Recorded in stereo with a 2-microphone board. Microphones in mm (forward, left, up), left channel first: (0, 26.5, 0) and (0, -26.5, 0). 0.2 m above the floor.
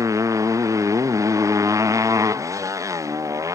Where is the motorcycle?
85° right.